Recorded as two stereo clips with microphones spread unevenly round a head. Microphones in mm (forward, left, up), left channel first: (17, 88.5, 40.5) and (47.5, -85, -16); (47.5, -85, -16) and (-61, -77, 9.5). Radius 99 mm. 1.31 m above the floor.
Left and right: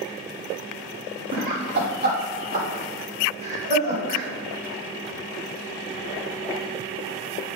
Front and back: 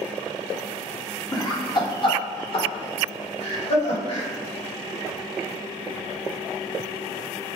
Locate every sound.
1.3 s laughter: 60° right, 2.5 m; by 4.3 s 25° right, 5.5 m